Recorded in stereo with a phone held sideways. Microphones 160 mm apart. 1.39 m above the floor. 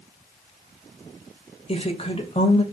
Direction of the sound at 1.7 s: 35° left (ahead or behind).